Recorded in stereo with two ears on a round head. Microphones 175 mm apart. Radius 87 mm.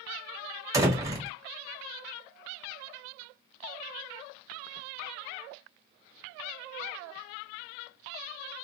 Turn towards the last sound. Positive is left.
turn(degrees=-15)  # may be behind; listen again after turning